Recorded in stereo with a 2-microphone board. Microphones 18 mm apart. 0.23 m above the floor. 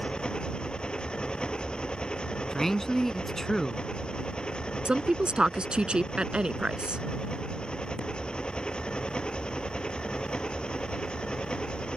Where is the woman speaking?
65° right (ahead or behind).